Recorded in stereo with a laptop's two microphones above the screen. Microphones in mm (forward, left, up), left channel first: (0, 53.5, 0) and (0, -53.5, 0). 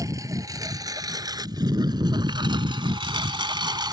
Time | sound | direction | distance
0.0 | a lawn mower | 30° right (ahead or behind) | ?